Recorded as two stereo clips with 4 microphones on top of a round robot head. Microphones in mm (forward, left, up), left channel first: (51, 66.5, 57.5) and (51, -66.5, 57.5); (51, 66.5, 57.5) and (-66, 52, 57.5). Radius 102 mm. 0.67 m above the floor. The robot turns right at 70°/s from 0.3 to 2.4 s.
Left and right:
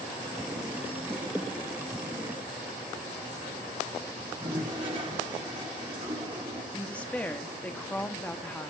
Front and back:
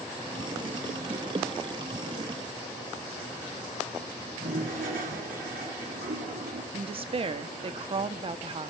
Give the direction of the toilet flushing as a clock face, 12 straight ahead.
5 o'clock.